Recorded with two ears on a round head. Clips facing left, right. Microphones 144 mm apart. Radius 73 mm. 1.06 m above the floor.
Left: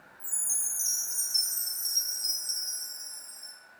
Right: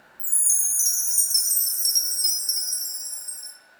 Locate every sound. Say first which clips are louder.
0.2 s a chime: right 2 dB; 60° right (ahead or behind), 2 m